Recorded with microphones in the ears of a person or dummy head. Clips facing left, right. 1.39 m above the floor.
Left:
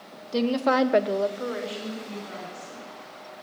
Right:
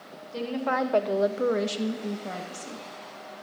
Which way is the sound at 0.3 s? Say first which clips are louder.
Left 6 dB; 70° left (ahead or behind).